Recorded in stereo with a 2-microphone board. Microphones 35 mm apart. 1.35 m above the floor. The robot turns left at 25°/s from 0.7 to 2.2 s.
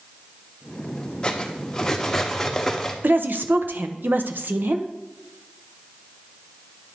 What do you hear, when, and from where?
1.2 s cutlery clinking: 25° left (ahead or behind), 0.8 m; by 2.9 s 10° left (ahead or behind), 0.8 m
3.0 s a woman speaking: 75° right (ahead or behind), 0.6 m